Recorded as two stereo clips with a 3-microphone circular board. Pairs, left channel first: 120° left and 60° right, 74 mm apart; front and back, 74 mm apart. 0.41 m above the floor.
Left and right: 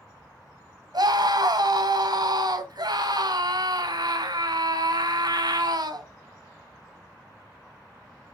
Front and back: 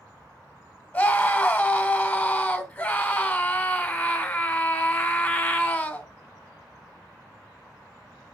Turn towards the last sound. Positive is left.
turn(degrees=-65)